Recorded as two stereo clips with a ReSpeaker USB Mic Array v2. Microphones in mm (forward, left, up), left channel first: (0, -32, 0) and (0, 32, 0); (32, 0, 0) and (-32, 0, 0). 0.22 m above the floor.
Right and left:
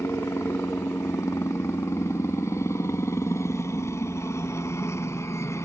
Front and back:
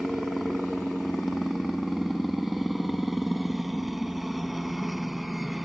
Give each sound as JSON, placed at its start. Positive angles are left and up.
{"t": 0.0, "sound": "a helicopter", "azimuth_deg": -95}